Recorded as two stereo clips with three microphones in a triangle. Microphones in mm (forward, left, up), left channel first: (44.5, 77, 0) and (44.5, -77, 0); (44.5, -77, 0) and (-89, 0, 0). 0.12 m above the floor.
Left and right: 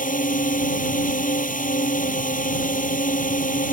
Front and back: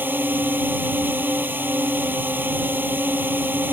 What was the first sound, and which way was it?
A drone, 75° left.